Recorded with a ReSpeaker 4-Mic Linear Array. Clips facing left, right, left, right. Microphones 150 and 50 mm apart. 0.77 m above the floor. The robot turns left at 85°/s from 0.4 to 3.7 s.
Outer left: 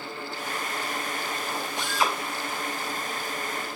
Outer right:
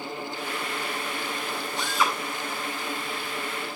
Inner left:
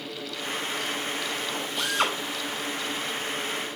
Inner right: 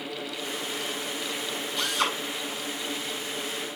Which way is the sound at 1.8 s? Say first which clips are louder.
Outer right 1 dB, inner left 1 dB; 15° left (ahead or behind).